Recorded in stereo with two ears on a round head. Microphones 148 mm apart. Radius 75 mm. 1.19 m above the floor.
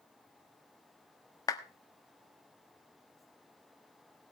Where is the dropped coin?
I don't hear a dropped coin.